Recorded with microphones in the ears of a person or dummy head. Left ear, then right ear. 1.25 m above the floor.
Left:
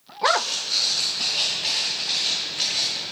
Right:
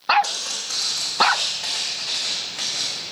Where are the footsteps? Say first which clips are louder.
Left 6 dB; 25° right (ahead or behind), 2.5 m; by 3.0 s 5° right (ahead or behind), 3.5 m.